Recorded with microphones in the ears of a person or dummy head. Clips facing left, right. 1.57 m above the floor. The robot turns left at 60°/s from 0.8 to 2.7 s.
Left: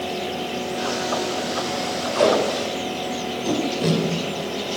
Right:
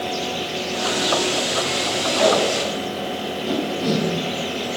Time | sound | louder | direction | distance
2.1 | tape being pulled | even | 50° left (ahead or behind) | 3 m